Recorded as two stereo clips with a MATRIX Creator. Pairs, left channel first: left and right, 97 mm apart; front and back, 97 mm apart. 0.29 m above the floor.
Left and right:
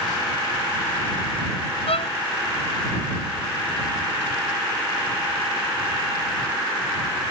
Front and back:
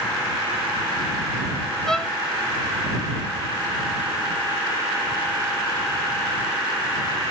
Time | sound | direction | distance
1.9 | a violin | 85° left | ?